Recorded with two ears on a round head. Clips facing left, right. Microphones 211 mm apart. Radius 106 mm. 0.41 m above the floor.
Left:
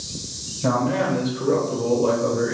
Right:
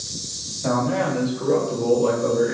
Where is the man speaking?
50° left (ahead or behind), 1.4 m; by 2.5 s 45° right (ahead or behind), 1.5 m.